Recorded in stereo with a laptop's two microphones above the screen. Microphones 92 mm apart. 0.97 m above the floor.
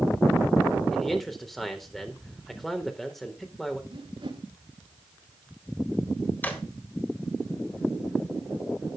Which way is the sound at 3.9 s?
65° right (ahead or behind).